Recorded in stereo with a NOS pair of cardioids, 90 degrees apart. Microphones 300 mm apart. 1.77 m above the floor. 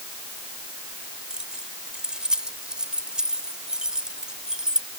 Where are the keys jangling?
Straight ahead.